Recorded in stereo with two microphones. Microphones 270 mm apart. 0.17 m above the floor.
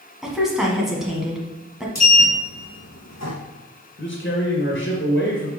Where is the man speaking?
45° left (ahead or behind), 1.9 m.